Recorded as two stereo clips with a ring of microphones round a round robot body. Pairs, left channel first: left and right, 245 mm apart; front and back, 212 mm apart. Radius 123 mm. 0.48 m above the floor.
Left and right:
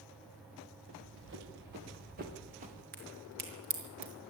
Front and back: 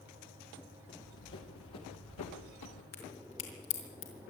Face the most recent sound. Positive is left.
turn(degrees=-35)